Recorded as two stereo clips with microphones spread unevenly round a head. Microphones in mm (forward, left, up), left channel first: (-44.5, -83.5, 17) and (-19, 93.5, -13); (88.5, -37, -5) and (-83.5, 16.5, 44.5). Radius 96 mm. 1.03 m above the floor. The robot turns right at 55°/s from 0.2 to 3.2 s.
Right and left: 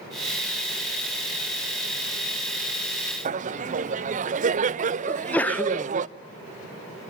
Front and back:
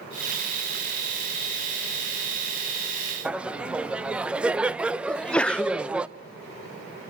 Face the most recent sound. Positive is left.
turn(degrees=-5)